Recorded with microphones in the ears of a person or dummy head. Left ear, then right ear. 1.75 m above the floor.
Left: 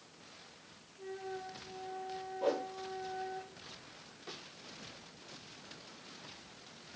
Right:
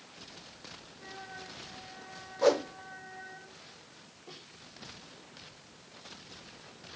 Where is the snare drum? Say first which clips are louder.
Left 2 dB; 75° left (ahead or behind), 3.5 m.